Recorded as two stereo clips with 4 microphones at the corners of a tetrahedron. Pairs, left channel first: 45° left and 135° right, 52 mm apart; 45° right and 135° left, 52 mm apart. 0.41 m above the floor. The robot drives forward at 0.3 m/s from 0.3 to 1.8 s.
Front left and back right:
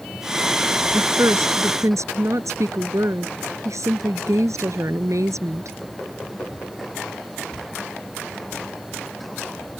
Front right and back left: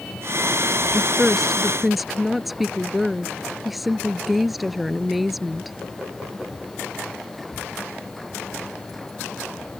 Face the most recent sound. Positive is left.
turn(degrees=-135)